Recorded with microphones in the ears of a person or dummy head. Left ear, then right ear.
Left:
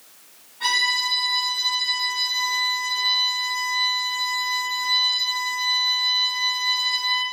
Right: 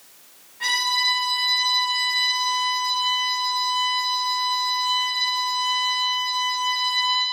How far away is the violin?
About 1.7 m.